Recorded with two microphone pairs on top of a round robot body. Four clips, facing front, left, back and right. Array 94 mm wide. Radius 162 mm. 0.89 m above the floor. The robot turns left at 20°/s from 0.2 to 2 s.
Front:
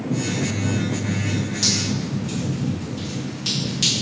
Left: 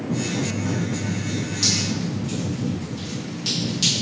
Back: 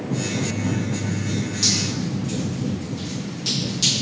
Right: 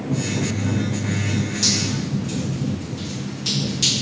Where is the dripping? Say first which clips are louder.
Right 1 dB, front 1 dB; 5° left, 2.0 m; by 3.9 s 5° right, 2.0 m.